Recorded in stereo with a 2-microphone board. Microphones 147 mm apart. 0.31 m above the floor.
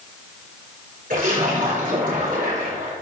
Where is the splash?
70° right (ahead or behind), 5 m.